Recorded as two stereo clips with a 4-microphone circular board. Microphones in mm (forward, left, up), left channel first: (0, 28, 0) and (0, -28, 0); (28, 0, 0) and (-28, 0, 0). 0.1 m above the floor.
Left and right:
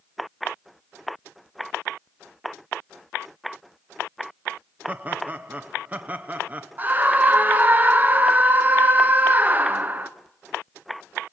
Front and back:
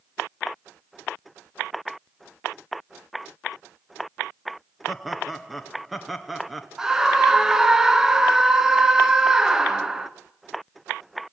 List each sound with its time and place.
4.9 s laughter: 90° right, 1.2 m
6.8 s a scream: 105° right, 1.4 m